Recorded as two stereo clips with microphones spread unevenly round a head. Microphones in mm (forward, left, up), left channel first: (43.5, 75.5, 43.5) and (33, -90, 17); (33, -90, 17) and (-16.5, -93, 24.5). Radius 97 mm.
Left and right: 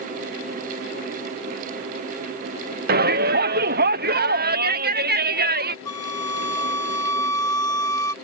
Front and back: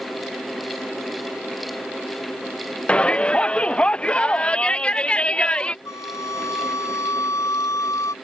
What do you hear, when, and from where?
2.9 s a shout: 65° right
5.8 s a flute: 15° left